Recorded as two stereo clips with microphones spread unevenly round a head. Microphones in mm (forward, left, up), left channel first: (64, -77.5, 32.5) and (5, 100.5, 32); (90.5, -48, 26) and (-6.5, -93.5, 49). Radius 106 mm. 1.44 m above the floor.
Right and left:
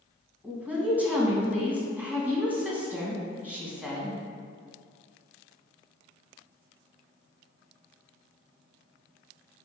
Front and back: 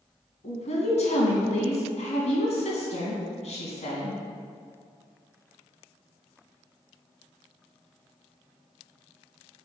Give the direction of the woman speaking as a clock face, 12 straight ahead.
11 o'clock.